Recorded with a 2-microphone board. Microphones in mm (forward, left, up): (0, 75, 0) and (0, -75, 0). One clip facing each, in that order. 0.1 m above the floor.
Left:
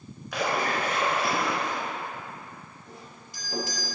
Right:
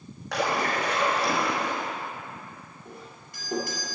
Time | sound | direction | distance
0.3 | a splash | 70° right (ahead or behind) | 3 m
2.9 | a doorbell | 55° right (ahead or behind) | 3 m